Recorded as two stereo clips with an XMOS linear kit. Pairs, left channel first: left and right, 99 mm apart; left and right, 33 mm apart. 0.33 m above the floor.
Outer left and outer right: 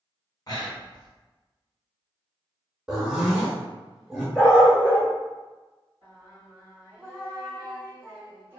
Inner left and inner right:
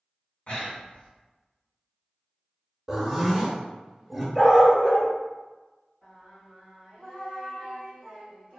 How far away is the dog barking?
About 1.9 m.